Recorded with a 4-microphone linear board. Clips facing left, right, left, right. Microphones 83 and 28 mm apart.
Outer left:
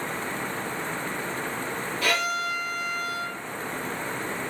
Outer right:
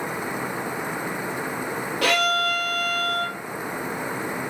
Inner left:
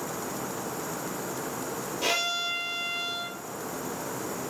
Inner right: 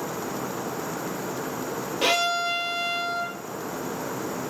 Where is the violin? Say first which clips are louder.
Outer right 5 dB, inner right 5 dB; 75° right (ahead or behind), 0.9 m.